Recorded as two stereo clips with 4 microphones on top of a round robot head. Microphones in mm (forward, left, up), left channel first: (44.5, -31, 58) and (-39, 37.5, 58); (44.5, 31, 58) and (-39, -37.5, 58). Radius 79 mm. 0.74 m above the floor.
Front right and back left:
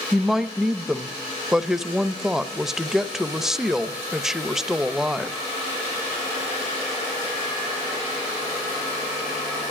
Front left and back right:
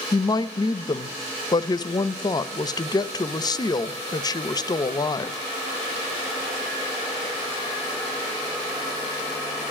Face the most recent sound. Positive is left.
turn(degrees=55)